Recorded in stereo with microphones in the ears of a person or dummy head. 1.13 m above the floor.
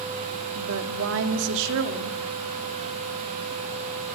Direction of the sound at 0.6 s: 70° right (ahead or behind).